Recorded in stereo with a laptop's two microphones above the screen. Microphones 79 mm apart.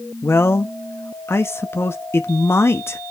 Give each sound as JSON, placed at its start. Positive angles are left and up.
{"t": 0.2, "sound": "a man speaking", "side_deg": 35, "distance_m": 0.9}